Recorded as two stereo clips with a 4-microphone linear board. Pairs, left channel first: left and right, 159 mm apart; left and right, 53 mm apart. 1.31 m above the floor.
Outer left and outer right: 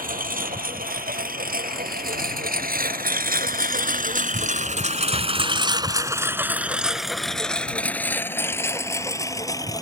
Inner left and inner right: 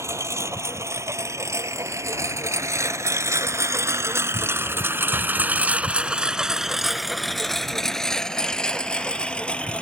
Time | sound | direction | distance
0.0 | a lawn mower | 60° right (ahead or behind) | ?